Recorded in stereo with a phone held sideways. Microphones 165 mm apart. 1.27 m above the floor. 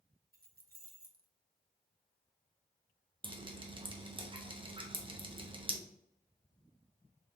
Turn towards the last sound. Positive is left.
turn(degrees=-30)  # may be behind; listen again after turning